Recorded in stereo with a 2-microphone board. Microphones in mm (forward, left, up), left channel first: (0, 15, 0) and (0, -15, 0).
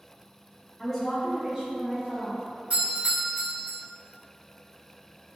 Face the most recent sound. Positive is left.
turn(degrees=-45)  # may be behind; listen again after turning